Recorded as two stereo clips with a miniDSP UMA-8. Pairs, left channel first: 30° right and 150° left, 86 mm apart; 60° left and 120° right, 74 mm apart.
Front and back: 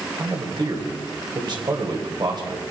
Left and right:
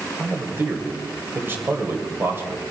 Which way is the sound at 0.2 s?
Straight behind.